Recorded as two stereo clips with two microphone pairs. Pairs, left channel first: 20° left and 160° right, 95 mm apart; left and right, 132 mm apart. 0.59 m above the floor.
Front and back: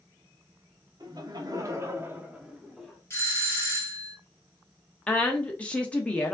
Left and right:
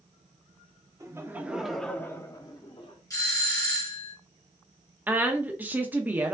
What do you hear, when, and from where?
1.0 s laughter: 150° right, 1.0 m; by 3.0 s 105° left, 1.1 m
3.1 s a doorbell: 55° left, 1.7 m
5.1 s a woman speaking: 30° right, 0.7 m